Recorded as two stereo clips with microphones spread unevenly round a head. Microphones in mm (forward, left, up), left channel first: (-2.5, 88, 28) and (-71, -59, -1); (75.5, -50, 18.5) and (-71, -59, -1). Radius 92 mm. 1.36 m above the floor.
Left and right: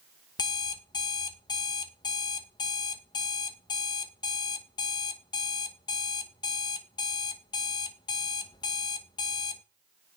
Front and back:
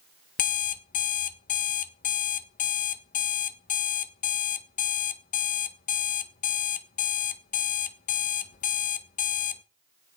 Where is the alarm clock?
5° left, 0.8 m.